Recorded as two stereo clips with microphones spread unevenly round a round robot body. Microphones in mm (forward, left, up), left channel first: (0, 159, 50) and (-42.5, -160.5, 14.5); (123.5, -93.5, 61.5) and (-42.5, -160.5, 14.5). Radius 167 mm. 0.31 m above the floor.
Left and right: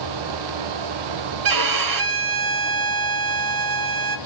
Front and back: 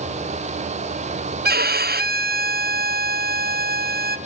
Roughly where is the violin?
Behind right.